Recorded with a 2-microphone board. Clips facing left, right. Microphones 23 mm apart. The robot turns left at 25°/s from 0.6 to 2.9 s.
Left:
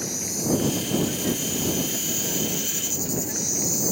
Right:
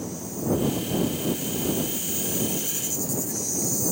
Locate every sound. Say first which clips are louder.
0.0 s an insect: left 3 dB; 90° left; by 3.9 s 35° left